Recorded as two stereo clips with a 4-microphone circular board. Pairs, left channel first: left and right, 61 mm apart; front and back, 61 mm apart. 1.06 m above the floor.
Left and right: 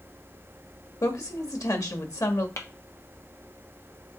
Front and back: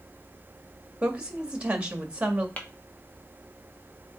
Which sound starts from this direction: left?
A woman speaking, at 1.0 s.